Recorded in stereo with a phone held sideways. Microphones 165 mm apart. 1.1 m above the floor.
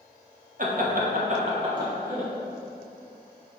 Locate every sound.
0.6 s laughter: 55° right (ahead or behind), 1.3 m; by 2.3 s 15° right (ahead or behind), 2 m